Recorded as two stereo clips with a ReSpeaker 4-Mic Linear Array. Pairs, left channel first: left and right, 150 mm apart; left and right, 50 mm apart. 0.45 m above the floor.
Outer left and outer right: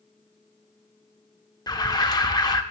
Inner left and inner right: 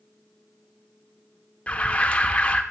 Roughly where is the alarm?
Left.